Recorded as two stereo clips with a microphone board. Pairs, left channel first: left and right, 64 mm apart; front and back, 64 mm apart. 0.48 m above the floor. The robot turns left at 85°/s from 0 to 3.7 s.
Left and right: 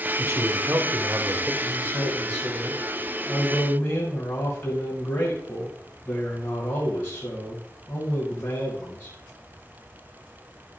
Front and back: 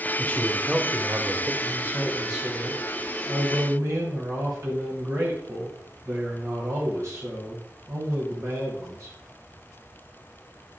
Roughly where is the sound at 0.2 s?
Ahead right.